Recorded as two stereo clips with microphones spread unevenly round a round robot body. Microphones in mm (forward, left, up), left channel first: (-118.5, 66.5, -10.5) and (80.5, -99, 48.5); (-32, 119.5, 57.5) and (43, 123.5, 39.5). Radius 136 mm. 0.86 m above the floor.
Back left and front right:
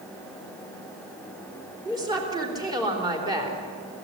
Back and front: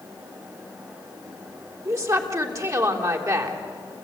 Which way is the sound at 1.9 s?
40° left.